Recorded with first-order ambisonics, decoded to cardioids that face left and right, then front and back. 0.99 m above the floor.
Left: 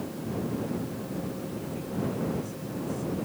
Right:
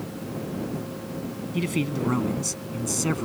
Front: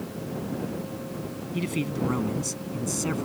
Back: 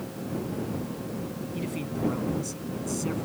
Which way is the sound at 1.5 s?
65° right.